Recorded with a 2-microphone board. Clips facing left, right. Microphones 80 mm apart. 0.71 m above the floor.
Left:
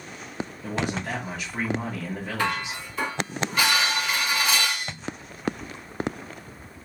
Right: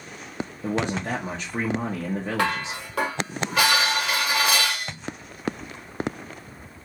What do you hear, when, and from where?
0.6 s a man speaking: 30° right (ahead or behind), 1.0 m
2.4 s dishes clattering: 80° right, 2 m